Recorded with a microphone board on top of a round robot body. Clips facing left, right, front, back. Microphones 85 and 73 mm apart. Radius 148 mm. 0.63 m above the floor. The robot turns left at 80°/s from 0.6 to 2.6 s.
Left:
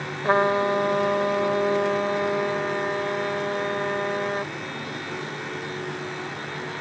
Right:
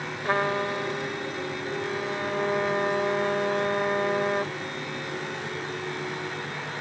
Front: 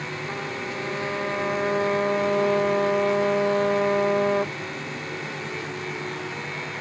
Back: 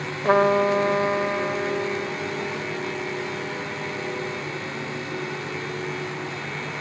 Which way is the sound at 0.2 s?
155° left.